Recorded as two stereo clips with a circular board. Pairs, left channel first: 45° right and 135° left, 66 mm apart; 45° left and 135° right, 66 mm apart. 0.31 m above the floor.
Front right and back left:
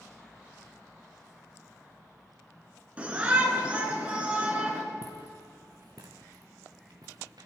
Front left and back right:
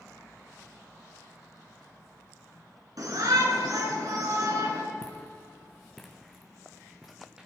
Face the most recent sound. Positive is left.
turn(degrees=145)